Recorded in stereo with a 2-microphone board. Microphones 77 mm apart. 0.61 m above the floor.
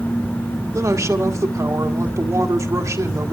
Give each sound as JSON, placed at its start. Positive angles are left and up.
{"t": 0.7, "sound": "a woman speaking", "side_deg": -45, "distance_m": 1.6}